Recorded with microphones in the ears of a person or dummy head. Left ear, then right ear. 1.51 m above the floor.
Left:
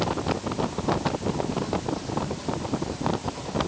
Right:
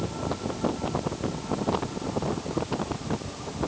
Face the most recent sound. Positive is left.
No sound to turn to.